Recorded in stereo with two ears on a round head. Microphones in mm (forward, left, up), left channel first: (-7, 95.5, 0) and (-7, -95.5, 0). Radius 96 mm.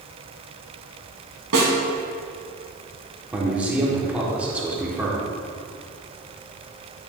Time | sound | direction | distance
1.5 | a snare drum | 80° right | 2 m
3.3 | a man speaking | 5° right (ahead or behind) | 1.2 m